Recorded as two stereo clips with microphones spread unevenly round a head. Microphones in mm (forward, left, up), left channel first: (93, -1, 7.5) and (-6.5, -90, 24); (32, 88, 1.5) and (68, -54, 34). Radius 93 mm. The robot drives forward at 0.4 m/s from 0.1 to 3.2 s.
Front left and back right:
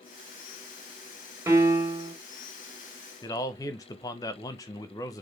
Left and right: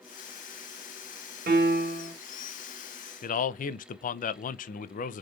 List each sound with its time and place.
1.5 s a piano: 75° right, 1.5 m; by 2.1 s 85° right, 1.4 m
3.2 s a man speaking: 105° left, 0.5 m